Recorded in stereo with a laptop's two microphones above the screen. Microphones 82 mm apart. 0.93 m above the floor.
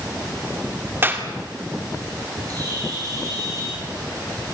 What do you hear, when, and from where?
1.0 s a clap: 30° right (ahead or behind), 2 m
2.5 s a bird: 50° right (ahead or behind), 10 m